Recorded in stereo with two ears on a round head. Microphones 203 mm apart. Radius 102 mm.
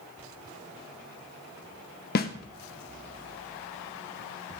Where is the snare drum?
40° left (ahead or behind), 1.0 m.